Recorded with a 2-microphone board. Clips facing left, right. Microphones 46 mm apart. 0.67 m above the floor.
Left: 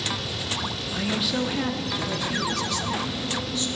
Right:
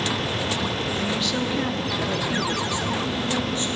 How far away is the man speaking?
About 1.1 m.